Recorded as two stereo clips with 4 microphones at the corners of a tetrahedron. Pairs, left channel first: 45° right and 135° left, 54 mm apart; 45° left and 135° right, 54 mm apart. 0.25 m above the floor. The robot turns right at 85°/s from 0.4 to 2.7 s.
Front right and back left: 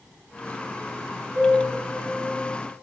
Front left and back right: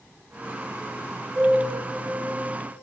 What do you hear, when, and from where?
1.4 s a piano: 160° left, 5.5 m; by 2.6 s 95° right, 5.5 m